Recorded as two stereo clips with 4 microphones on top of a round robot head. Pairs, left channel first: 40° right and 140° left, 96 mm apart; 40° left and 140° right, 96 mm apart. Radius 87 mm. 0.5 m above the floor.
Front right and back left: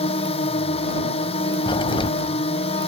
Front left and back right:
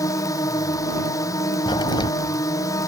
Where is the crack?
5° right.